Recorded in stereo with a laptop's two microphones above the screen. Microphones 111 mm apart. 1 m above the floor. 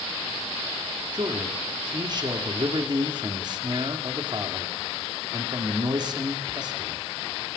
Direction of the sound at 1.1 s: 40° right (ahead or behind).